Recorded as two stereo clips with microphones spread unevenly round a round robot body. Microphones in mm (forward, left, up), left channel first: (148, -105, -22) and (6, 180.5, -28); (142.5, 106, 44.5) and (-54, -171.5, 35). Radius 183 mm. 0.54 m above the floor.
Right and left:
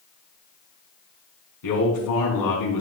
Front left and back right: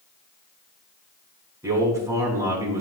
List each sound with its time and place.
1.6 s a man speaking: 45° right, 4.5 m